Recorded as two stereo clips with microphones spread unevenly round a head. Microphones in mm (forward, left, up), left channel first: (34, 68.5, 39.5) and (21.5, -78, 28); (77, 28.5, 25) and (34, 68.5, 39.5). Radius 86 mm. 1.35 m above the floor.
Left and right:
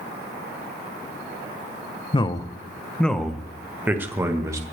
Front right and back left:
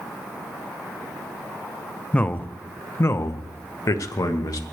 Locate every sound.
2.1 s a man speaking: 25° left, 1.1 m; by 4.6 s 25° right, 1.9 m